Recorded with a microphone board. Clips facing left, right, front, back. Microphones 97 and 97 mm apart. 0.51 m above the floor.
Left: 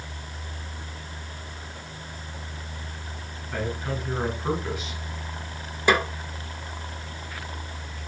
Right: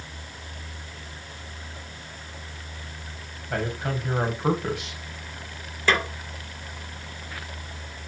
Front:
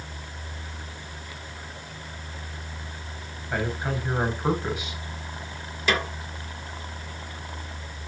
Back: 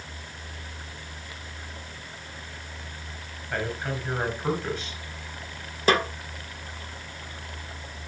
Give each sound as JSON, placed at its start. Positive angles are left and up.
{"t": 3.5, "sound": "a man speaking", "azimuth_deg": -80, "distance_m": 3.5}
{"t": 5.9, "sound": "a snare drum", "azimuth_deg": 155, "distance_m": 1.4}